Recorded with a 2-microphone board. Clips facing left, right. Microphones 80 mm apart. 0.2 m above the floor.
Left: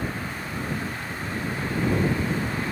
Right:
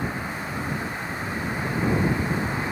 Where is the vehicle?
15° right (ahead or behind); by 2.7 s 20° right (ahead or behind).